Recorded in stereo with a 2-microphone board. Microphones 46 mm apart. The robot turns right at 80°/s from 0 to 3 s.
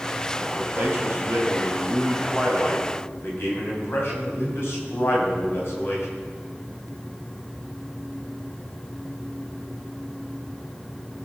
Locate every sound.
0.6 s a man speaking: 135° right, 3 m; by 6.1 s 60° left, 3 m